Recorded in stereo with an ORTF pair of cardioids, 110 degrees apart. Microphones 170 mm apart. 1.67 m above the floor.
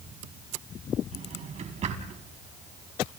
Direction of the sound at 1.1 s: 45° right.